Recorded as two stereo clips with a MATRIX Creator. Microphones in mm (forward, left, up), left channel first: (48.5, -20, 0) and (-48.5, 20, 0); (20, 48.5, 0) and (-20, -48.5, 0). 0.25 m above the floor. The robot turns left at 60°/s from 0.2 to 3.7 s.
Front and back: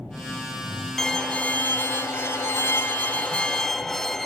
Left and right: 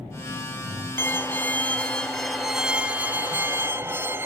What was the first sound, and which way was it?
A violin, 60° left.